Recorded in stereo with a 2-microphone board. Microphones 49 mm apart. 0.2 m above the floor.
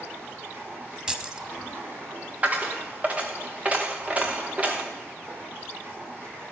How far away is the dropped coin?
About 1.7 m.